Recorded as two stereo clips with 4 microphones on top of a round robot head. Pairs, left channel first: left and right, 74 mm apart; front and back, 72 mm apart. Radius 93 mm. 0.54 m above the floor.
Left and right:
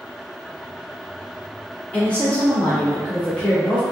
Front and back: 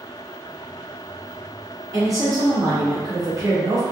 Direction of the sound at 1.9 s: 160° left.